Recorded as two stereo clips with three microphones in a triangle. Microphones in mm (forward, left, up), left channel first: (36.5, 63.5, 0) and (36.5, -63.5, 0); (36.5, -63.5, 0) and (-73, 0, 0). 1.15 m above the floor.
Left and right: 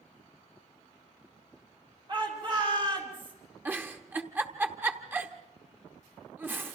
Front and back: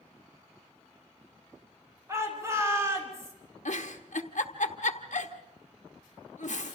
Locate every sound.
2.1 s a shout: 145° right, 5.5 m
3.6 s a giggle: 15° right, 1.2 m